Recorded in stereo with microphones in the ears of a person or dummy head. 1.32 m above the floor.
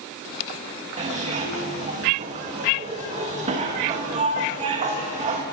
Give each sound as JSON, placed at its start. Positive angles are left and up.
{"t": 1.0, "sound": "a zipper", "side_deg": -40, "distance_m": 1.4}